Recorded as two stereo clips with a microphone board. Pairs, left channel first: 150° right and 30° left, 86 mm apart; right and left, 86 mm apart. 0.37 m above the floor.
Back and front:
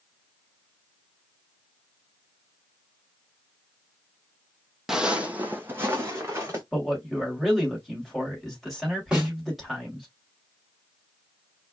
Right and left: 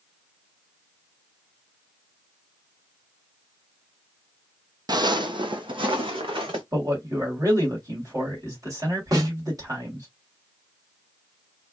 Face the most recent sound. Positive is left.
turn(degrees=110)